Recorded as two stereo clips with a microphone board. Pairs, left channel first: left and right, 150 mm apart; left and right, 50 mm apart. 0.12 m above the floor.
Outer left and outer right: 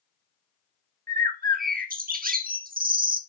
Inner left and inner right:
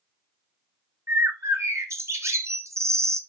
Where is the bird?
75° right (ahead or behind), 0.9 m.